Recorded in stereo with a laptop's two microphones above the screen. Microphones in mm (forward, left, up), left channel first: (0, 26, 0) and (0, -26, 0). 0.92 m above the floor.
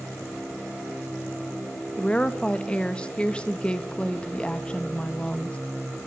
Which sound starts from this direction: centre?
A woman speaking, at 2.0 s.